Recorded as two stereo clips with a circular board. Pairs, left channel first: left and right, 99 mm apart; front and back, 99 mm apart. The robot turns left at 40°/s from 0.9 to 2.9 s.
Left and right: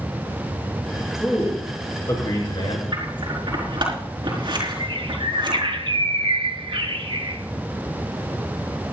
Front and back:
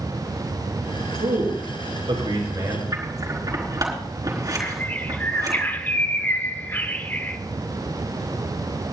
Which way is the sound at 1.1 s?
175° right.